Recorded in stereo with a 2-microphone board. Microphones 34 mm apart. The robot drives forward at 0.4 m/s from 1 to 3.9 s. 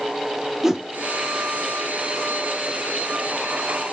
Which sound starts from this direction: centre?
A whoosh, at 0.6 s.